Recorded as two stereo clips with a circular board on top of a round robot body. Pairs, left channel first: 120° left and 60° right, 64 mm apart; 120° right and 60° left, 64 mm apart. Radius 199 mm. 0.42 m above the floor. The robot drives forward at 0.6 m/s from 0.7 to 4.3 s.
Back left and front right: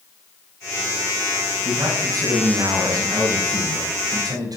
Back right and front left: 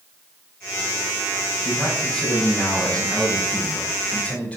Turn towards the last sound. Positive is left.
turn(degrees=-45)